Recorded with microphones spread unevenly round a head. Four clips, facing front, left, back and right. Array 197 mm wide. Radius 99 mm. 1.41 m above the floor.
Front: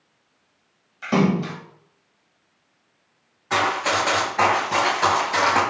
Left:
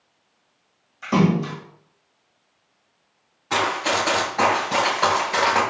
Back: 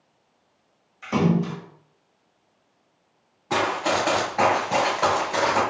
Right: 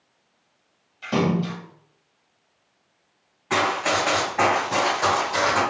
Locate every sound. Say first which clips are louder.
1.0 s a splash: left 3 dB, front 2 dB; 30° left, 1.6 m
3.5 s running footsteps: even, front 1 dB; 155° right, 1.5 m; by 5.6 s 95° left, 1.5 m